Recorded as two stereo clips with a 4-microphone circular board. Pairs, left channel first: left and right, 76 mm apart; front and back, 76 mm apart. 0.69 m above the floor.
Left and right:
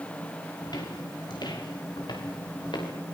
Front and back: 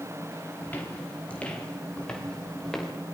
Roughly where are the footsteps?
Ahead left.